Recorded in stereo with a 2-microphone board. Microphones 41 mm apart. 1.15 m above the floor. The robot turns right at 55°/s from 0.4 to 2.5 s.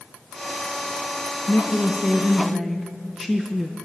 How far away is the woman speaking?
About 0.6 m.